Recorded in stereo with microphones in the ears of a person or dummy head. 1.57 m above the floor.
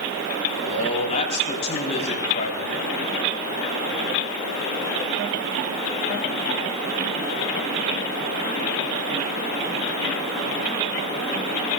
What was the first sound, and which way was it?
A man speaking, 40° left (ahead or behind).